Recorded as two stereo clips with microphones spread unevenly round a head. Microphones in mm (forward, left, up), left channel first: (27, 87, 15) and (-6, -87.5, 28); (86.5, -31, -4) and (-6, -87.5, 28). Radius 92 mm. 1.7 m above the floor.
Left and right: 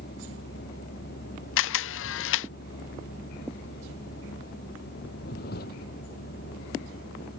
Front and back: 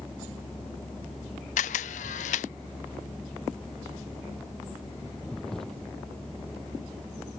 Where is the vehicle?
120° left.